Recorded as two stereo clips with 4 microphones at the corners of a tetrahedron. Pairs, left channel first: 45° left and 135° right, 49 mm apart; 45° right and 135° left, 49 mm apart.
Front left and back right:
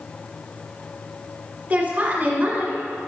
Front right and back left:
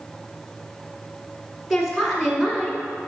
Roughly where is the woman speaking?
Behind right.